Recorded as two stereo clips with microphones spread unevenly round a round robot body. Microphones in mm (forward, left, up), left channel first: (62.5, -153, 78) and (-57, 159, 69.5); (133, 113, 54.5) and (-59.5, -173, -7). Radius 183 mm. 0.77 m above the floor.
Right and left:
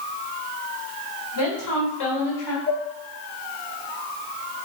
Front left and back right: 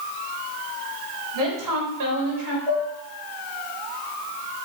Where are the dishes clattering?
135° right, 4 m.